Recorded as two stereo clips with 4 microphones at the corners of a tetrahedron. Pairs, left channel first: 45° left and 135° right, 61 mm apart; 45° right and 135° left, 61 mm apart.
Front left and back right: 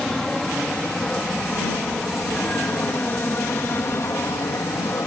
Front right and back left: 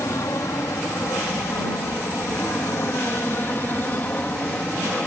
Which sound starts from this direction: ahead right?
An aircraft, at 0.0 s.